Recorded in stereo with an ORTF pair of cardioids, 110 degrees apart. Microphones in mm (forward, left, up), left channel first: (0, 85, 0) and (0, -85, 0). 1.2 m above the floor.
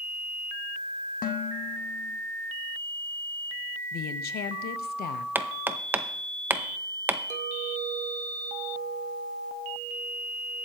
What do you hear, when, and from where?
1.2 s dishes clattering: 55° left, 1.1 m
3.9 s a woman speaking: 70° left, 1.0 m
5.3 s hammering: 10° right, 0.7 m
7.3 s a clink: 45° right, 1.3 m